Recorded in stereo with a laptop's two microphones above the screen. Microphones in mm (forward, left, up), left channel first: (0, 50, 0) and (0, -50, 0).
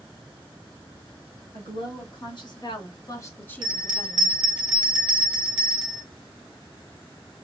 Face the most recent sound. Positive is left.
turn(degrees=-50)  # may be behind; listen again after turning